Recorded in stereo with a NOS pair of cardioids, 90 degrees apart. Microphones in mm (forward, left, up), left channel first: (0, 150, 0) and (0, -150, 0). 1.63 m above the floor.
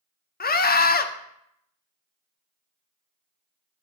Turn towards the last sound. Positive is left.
turn(degrees=30)